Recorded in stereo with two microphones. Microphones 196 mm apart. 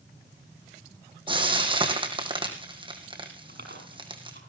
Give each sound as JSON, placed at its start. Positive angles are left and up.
{"t": 1.3, "sound": "frying", "side_deg": -25, "distance_m": 3.0}
{"t": 3.5, "sound": "chewing", "side_deg": -60, "distance_m": 6.0}